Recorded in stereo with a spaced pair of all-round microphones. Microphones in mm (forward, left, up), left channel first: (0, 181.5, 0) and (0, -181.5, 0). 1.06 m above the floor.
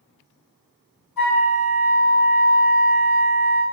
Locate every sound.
1.2 s a flute: 70° left (ahead or behind), 2 m